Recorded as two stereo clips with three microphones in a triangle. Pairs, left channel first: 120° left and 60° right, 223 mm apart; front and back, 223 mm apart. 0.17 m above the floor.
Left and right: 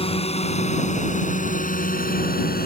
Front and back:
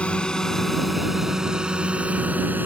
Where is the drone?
80° left; by 2.7 s 100° left.